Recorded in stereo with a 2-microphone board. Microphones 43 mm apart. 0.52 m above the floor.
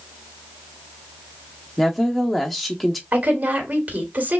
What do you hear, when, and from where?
1.8 s a woman speaking: centre (ahead or behind), 0.7 m
3.1 s a woman speaking: 40° right (ahead or behind), 1.5 m